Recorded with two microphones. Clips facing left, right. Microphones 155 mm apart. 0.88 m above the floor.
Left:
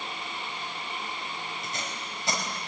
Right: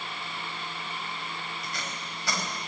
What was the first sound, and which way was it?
Tape being pulled, 20° left (ahead or behind).